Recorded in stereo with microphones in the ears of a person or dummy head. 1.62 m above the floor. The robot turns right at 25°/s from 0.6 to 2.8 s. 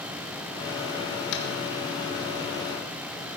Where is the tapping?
75° left (ahead or behind), 1.6 m.